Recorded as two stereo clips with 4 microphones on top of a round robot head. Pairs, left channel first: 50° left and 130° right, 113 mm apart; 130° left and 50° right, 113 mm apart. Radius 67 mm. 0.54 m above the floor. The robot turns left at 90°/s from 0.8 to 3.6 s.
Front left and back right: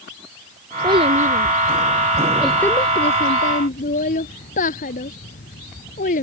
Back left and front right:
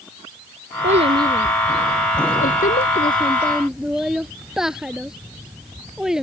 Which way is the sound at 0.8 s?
75° right.